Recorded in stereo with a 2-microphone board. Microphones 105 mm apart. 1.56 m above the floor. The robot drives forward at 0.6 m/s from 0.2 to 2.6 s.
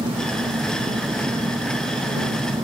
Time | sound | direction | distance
0.0 | an engine running | 45° right (ahead or behind) | ?